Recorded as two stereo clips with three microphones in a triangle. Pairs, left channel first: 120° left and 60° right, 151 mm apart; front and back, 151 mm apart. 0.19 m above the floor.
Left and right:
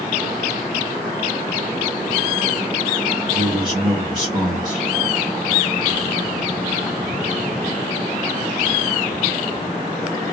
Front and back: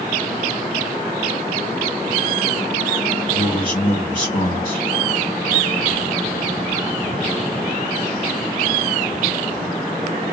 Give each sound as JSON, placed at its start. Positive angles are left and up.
{"t": 3.3, "sound": "a man speaking", "azimuth_deg": -5, "distance_m": 2.0}